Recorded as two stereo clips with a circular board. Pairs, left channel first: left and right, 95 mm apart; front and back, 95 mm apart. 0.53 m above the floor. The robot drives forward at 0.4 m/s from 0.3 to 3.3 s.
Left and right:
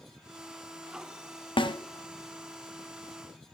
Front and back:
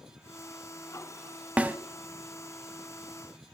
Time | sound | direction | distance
1.6 | a snare drum | 105° left | 0.7 m